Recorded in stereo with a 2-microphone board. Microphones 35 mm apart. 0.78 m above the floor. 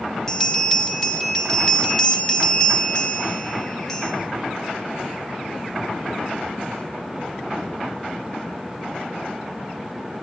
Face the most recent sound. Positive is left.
turn(degrees=10)  # may be behind; listen again after turning